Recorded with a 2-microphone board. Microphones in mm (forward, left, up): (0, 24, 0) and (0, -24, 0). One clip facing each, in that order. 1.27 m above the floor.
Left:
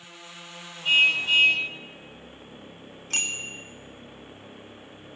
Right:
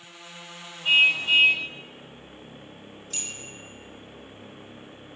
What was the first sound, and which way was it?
A car horn, 5° right (ahead or behind).